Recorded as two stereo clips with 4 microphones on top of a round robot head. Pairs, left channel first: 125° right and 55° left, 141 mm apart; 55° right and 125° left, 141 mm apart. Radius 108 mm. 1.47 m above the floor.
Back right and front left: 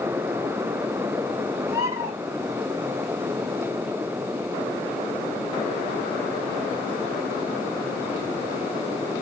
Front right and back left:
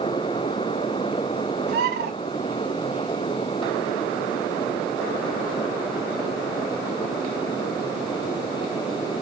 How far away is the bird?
About 1.1 m.